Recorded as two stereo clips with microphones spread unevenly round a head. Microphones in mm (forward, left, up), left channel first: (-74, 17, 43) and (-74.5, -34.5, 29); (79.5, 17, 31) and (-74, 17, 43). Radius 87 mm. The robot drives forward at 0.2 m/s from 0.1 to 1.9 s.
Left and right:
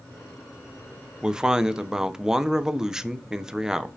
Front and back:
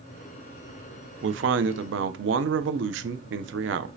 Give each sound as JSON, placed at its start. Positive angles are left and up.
{"t": 1.2, "sound": "a man speaking", "azimuth_deg": -170, "distance_m": 0.5}